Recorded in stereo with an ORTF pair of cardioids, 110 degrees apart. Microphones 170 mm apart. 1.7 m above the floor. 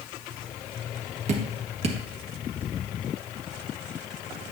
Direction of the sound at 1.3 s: 40° right.